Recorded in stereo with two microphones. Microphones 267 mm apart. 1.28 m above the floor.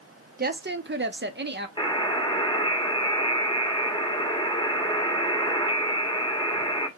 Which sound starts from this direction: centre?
A buzzer, at 1.8 s.